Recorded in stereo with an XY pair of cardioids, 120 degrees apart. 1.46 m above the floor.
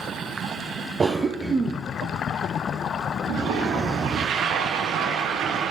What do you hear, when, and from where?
1.0 s a cough: 25° right, 0.5 m
3.3 s a toilet flushing: 65° right, 0.8 m